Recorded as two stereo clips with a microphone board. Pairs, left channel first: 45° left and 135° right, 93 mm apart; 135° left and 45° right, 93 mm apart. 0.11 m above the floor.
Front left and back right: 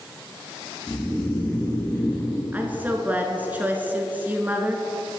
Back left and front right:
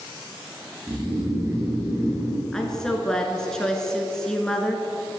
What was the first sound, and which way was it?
Snoring, 15° right.